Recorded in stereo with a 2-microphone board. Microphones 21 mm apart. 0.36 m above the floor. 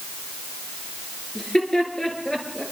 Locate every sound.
1.4 s laughter: 50° left (ahead or behind), 7 m; by 2.6 s 60° left (ahead or behind), 7.5 m